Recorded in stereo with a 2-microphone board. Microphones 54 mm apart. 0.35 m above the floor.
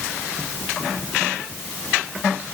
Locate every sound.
Only background noise.